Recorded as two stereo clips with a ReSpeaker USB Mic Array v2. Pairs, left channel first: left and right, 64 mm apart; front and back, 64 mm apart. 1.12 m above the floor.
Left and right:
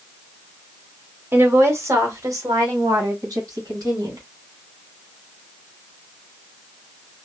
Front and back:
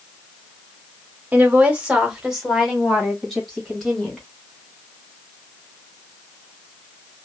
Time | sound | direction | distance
1.3 | a woman speaking | 130° right | 0.9 m